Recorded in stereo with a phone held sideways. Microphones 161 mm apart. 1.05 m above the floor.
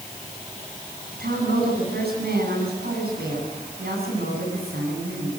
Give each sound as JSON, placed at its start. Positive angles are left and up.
{"t": 1.1, "sound": "a woman speaking", "side_deg": -85, "distance_m": 9.5}